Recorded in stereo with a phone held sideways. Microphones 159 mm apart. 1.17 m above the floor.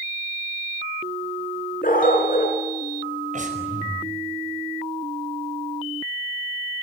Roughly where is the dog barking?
Left.